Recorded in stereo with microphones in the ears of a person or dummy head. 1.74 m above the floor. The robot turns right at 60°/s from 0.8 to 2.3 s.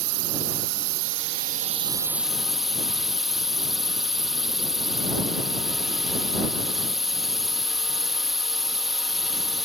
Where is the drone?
100° right; by 9.7 s 10° right.